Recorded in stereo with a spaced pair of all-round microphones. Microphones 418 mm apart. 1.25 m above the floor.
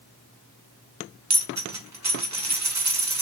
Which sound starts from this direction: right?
A dropped coin, at 1.3 s.